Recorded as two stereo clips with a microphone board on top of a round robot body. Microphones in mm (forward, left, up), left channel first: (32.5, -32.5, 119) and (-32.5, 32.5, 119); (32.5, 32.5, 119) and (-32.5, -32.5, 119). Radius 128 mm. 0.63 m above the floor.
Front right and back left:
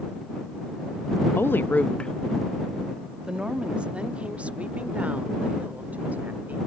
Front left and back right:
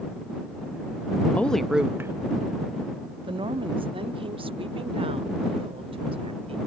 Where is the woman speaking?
10° right; by 6.6 s 150° right.